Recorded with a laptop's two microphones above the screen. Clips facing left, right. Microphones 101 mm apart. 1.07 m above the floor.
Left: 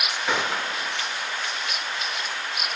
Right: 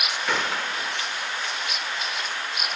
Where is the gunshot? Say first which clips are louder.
Left 1 dB; 5° left (ahead or behind), 0.7 m.